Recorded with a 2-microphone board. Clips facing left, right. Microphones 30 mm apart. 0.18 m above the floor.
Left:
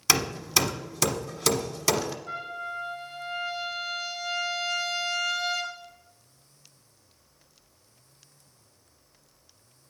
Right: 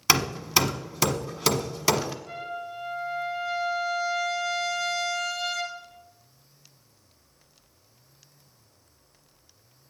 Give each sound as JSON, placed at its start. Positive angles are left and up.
{"t": 0.1, "sound": "hammering", "side_deg": -15, "distance_m": 1.0}
{"t": 2.3, "sound": "a trumpet", "side_deg": 10, "distance_m": 3.0}